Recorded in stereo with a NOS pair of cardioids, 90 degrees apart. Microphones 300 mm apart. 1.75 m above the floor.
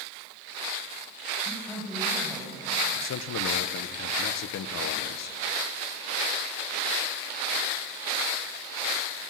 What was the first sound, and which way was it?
A man speaking, 5° left.